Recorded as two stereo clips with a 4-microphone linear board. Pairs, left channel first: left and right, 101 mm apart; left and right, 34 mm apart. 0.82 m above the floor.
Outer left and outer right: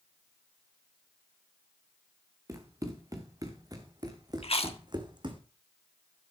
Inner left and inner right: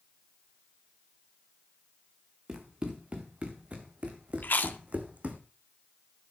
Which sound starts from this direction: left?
Chewing, at 4.4 s.